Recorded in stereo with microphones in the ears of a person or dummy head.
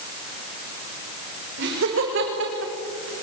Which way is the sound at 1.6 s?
65° right (ahead or behind).